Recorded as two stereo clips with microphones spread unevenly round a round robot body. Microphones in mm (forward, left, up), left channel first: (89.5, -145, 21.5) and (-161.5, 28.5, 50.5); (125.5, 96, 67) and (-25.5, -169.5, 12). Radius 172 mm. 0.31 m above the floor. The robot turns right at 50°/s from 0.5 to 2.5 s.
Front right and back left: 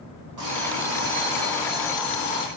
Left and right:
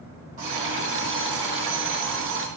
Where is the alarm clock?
170° left, 5.5 m; by 2.5 s 90° right, 5.5 m.